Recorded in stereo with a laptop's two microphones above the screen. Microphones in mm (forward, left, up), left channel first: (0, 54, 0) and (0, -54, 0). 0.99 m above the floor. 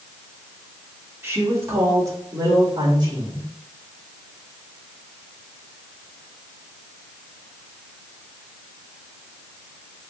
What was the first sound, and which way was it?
A woman speaking, 20° right (ahead or behind).